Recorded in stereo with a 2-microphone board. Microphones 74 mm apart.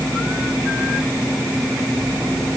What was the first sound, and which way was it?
Only background noise.